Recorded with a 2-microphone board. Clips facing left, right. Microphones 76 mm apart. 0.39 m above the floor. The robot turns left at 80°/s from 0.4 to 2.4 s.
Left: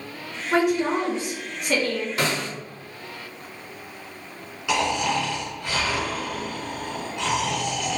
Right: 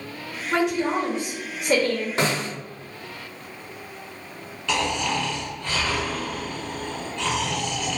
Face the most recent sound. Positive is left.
turn(degrees=15)  # may be behind; listen again after turning